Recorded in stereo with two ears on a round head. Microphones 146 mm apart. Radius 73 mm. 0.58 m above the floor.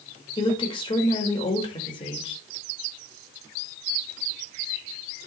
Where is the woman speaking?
30° left (ahead or behind), 2 m.